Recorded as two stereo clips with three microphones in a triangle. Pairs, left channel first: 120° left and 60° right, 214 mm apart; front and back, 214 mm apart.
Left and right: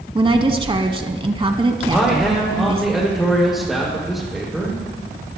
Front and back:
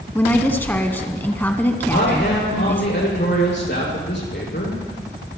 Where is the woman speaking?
65° right, 1.1 m.